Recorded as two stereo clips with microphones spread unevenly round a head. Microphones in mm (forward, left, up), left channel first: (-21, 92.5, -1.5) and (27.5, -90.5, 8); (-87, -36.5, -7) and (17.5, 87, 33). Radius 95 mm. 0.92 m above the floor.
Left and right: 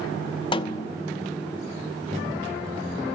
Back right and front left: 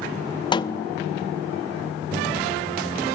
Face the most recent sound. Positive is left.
turn(degrees=170)